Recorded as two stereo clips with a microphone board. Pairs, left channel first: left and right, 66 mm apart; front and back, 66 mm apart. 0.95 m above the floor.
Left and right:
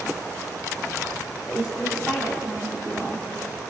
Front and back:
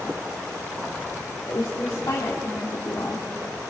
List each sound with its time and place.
1.5 s a woman speaking: 15° right, 2.5 m